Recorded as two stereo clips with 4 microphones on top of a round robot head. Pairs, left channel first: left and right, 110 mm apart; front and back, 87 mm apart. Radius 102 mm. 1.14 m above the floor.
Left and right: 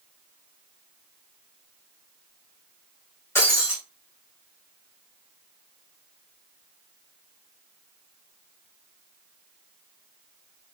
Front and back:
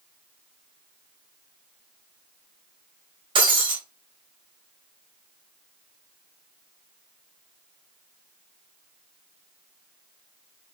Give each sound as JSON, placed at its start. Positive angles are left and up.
{"t": 3.4, "sound": "breaking glass", "azimuth_deg": 160, "distance_m": 4.0}